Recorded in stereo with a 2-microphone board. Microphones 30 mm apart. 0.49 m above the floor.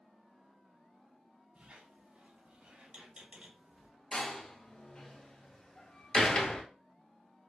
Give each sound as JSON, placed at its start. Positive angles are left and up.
{"t": 1.6, "sound": "a squeak", "side_deg": -40, "distance_m": 1.5}
{"t": 4.1, "sound": "a door slam", "side_deg": 35, "distance_m": 1.1}